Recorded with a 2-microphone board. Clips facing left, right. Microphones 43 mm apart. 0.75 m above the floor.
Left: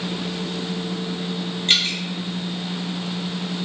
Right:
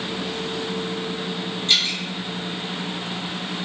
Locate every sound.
1.7 s dripping: 45° left (ahead or behind), 0.7 m